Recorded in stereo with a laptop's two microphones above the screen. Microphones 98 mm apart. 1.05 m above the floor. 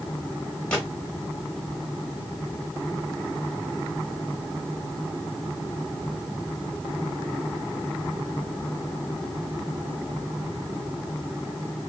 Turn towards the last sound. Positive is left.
turn(degrees=10)  # may be behind; listen again after turning